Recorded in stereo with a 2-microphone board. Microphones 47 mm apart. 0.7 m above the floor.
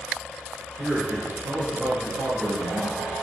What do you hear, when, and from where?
0.8 s a man speaking: 40° right (ahead or behind), 0.6 m